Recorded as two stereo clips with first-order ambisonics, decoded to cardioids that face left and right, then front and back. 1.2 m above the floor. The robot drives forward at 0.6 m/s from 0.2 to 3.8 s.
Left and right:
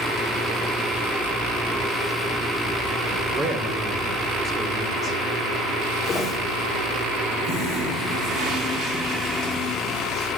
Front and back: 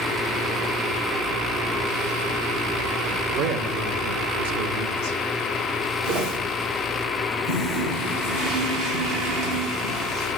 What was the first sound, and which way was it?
A man speaking, 155° right.